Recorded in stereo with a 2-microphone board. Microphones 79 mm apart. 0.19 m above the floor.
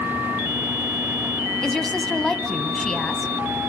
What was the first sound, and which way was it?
A woman speaking, 5° left (ahead or behind).